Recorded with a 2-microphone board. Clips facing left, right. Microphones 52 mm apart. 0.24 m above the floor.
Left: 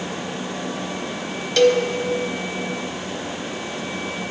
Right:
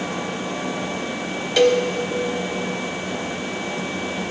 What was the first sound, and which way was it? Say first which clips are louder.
A cowbell: left 1 dB; 10° right (ahead or behind).